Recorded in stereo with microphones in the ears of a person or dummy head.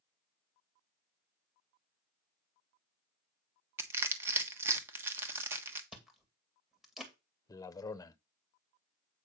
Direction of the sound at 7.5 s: 20° left (ahead or behind).